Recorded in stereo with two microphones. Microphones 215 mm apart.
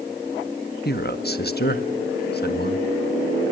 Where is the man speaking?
50° left (ahead or behind), 1.3 m.